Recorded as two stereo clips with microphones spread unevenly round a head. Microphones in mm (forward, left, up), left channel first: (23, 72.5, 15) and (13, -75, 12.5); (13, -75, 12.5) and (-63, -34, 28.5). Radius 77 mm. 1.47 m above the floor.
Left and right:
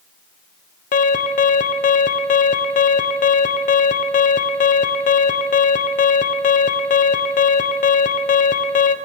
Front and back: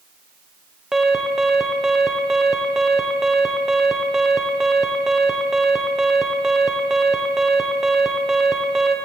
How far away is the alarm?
About 1.3 m.